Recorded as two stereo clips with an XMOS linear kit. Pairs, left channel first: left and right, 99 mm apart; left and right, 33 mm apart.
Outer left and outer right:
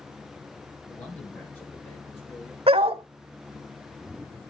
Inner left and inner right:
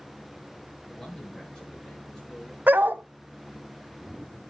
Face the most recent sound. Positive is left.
turn(degrees=-75)  # may be behind; listen again after turning